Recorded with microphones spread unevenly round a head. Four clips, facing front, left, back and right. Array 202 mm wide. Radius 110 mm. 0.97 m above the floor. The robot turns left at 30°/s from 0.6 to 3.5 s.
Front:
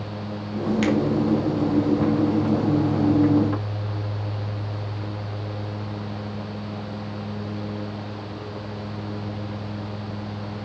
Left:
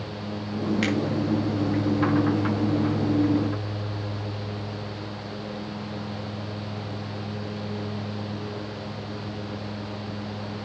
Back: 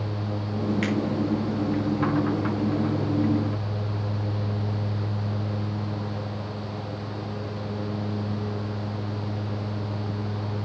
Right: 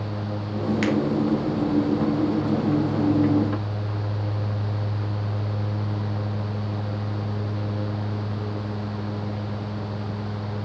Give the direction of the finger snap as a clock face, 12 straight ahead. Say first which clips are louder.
Right 4 dB, front 8 dB; 1 o'clock.